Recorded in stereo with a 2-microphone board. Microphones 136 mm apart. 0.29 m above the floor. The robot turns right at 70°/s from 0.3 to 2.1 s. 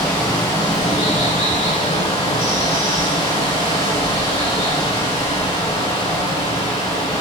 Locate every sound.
0.0 s running water: 5° left, 1.0 m; by 7.2 s 135° left, 1.0 m